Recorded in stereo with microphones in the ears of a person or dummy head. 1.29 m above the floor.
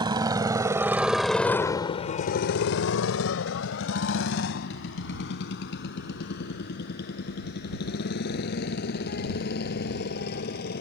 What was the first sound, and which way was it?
A motorcycle, 25° right (ahead or behind).